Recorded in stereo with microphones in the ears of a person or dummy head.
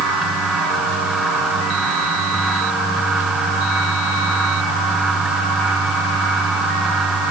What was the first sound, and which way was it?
Only background noise.